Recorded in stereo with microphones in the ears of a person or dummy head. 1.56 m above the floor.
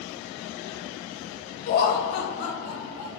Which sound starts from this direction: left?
Laughter, at 1.7 s.